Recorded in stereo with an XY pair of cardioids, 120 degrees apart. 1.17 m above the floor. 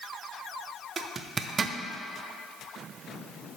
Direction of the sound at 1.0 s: 30° right.